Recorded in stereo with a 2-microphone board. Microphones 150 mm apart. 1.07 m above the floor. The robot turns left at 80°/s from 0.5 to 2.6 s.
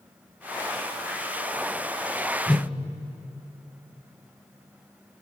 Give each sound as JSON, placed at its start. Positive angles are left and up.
{"t": 2.5, "sound": "a whoosh", "side_deg": 5, "distance_m": 1.2}